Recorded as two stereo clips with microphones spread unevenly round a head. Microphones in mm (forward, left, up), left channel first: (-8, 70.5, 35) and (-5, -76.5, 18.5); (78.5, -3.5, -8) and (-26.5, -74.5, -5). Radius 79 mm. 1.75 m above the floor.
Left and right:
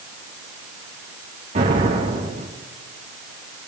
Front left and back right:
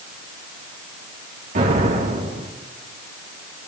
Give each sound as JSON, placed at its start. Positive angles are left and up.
{"t": 1.6, "sound": "an explosion", "azimuth_deg": -135, "distance_m": 3.5}